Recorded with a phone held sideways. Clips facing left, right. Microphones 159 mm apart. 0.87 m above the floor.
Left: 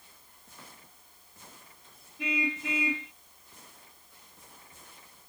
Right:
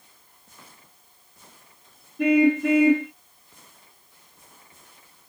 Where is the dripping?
No dripping in this recording.